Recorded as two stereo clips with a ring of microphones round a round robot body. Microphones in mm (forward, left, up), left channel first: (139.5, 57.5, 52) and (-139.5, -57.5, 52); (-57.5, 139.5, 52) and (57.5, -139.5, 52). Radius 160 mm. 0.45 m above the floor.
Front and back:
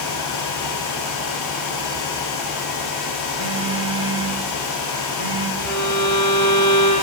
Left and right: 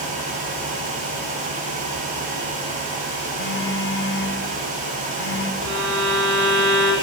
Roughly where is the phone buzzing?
Behind.